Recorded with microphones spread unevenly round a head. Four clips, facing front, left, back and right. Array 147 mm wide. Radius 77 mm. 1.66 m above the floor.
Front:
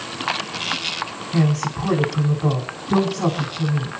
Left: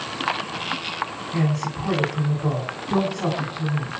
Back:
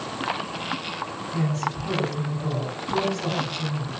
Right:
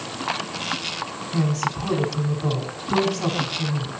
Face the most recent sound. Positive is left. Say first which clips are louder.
# right 1 dB, front 6 dB
turn(degrees=5)